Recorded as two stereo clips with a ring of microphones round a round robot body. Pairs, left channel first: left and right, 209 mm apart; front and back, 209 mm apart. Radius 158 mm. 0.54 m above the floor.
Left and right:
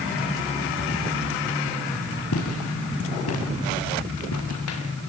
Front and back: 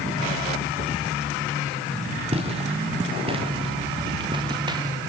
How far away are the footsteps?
About 7 m.